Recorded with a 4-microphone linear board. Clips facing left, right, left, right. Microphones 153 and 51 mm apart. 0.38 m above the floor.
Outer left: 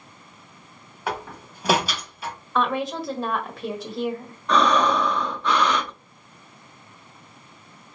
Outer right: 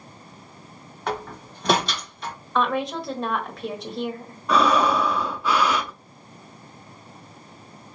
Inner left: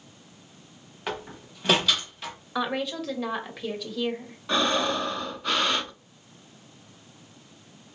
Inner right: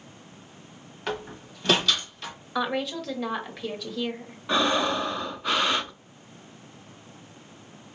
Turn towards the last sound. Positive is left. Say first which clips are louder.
# even, inner right 1 dB
turn(degrees=-5)  # may be behind; listen again after turning